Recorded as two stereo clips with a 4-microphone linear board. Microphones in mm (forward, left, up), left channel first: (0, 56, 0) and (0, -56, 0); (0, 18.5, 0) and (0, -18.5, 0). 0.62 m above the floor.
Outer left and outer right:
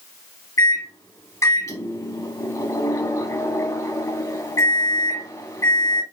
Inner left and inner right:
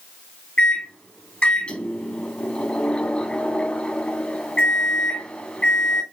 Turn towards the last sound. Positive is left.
turn(degrees=30)  # may be behind; listen again after turning